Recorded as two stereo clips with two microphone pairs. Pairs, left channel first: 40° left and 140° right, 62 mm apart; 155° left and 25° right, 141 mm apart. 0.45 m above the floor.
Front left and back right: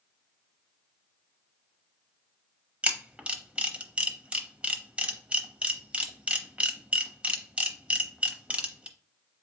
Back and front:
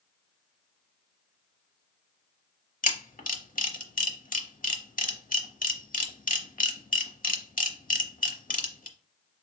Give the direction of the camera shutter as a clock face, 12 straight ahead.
7 o'clock.